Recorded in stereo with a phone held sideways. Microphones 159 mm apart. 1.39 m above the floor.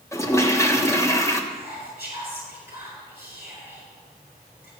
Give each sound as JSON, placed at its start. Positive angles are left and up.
{"t": 0.1, "sound": "a toilet flushing", "side_deg": 20, "distance_m": 1.1}
{"t": 1.5, "sound": "whispering", "side_deg": 80, "distance_m": 6.5}